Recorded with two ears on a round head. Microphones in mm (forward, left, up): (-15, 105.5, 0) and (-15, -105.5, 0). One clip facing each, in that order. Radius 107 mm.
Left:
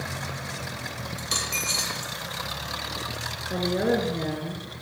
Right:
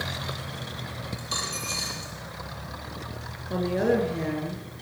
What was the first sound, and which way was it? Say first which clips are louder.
A dropped coin: left 2 dB; 40° left (ahead or behind).